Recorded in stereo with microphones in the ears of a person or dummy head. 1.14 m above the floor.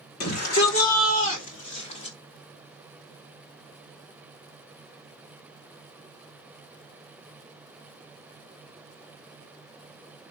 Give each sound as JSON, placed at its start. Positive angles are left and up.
{"t": 0.2, "sound": "a shout", "side_deg": 50, "distance_m": 4.0}